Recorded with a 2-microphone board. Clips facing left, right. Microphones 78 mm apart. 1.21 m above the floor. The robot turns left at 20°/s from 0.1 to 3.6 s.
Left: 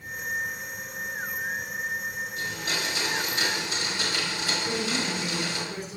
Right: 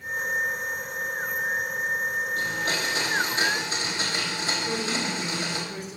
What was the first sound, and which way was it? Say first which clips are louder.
A blender: right 4 dB; 60° right (ahead or behind).